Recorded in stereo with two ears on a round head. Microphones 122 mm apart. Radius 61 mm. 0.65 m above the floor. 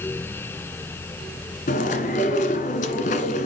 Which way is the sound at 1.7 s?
60° left (ahead or behind).